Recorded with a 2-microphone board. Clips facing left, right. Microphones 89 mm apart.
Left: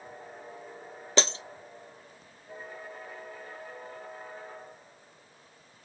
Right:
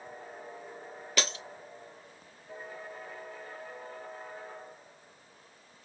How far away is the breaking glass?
About 0.5 m.